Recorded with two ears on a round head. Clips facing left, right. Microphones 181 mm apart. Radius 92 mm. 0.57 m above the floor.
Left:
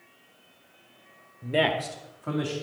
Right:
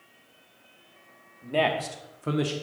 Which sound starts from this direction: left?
A man speaking, at 1.4 s.